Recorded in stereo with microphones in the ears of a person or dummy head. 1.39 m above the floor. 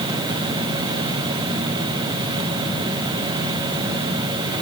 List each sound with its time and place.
Only background noise.